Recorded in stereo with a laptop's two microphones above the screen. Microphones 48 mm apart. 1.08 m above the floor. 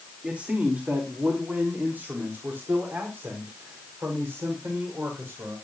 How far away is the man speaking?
About 2.5 m.